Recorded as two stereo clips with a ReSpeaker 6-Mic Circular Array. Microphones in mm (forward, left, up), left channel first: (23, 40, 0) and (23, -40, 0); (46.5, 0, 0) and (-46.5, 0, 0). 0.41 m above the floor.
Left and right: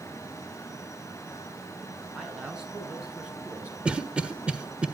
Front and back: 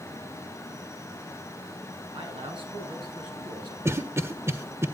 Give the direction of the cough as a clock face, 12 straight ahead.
5 o'clock.